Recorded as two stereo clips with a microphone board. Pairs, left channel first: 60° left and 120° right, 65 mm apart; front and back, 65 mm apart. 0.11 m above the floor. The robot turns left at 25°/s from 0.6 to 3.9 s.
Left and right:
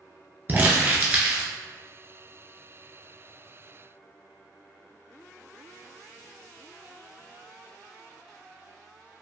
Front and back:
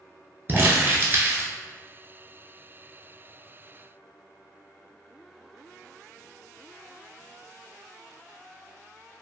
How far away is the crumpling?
About 0.6 m.